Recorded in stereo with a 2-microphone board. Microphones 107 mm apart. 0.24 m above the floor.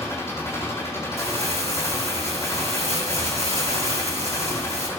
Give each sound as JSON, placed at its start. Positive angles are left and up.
{"t": 0.0, "sound": "an engine running", "side_deg": 25, "distance_m": 8.0}
{"t": 1.2, "sound": "crumpling", "side_deg": -85, "distance_m": 3.5}